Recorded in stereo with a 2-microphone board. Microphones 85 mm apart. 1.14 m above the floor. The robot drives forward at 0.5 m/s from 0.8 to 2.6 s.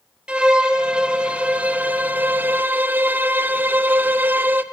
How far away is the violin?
About 1.1 m.